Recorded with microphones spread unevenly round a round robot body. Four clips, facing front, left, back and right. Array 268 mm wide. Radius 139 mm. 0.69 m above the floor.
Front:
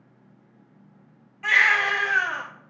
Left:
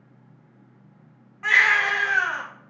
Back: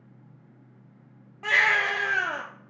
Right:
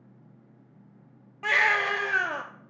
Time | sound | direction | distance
1.4 | a baby crying | 125° right | 0.8 m